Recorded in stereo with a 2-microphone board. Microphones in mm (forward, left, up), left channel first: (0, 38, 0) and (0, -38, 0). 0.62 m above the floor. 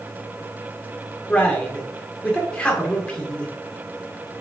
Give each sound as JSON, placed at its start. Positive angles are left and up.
{"t": 1.3, "sound": "a man speaking", "side_deg": 15, "distance_m": 1.8}